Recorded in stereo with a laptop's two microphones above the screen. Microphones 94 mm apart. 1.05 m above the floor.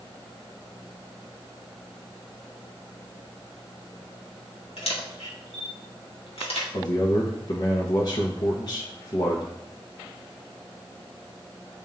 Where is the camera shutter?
80° left, 1.8 m.